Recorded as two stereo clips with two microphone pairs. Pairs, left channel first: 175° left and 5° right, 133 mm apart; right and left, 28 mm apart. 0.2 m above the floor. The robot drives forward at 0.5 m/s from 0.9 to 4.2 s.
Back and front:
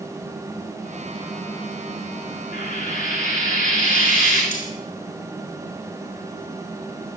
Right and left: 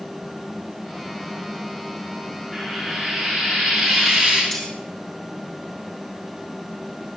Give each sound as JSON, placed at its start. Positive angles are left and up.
{"t": 2.5, "sound": "frying", "azimuth_deg": -175, "distance_m": 8.0}
{"t": 4.5, "sound": "cutlery clinking", "azimuth_deg": -160, "distance_m": 5.0}